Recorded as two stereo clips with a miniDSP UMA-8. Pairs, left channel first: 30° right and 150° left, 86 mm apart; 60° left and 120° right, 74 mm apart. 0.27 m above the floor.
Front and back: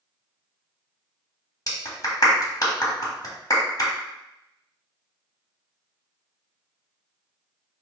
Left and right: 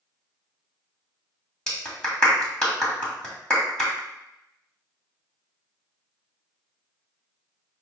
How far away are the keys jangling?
No keys jangling in this recording.